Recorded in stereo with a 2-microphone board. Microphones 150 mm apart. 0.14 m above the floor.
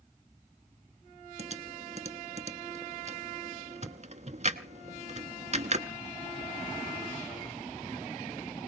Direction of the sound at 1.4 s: 50° right (ahead or behind).